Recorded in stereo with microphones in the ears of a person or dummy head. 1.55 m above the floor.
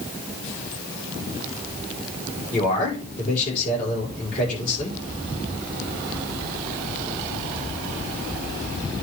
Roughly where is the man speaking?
Left.